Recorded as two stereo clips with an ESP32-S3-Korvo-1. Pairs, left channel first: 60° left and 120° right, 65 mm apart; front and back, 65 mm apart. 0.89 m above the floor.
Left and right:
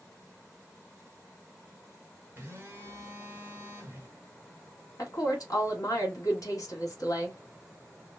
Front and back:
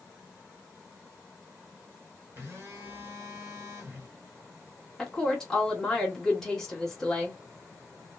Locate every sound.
2.4 s a phone buzzing: 165° right, 1.3 m
5.0 s a woman speaking: 80° left, 1.6 m